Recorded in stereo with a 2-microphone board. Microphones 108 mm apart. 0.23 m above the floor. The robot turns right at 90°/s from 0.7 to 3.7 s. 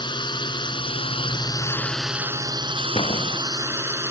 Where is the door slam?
60° left; by 3.4 s 105° left.